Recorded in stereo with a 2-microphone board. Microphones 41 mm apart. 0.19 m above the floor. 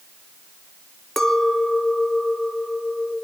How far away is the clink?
About 1.2 m.